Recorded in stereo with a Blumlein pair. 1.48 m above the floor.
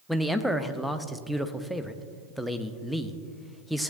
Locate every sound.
0.1 s a man speaking: straight ahead, 0.7 m